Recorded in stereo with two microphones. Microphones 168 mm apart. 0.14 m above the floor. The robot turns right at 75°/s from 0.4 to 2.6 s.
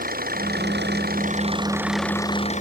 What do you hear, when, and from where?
0.0 s an engine running: 120° right; by 2.6 s 45° left